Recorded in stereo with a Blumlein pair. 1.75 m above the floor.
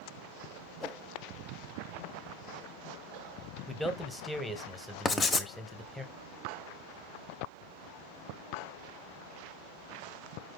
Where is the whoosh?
10° left, 0.5 m.